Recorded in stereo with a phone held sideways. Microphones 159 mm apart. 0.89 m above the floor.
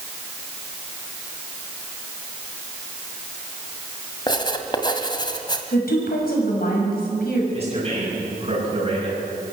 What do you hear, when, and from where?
4.3 s writing: 30° left (ahead or behind), 1.8 m
5.7 s a woman speaking: 75° left (ahead or behind), 6.5 m
7.5 s a man speaking: 40° right (ahead or behind), 8 m